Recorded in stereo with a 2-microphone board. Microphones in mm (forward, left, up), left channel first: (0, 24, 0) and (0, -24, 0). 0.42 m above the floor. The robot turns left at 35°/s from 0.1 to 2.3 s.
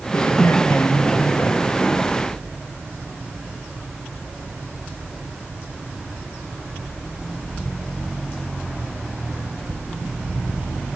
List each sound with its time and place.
0.1 s a woman speaking: 135° left, 1.8 m; by 1.8 s 80° left, 1.8 m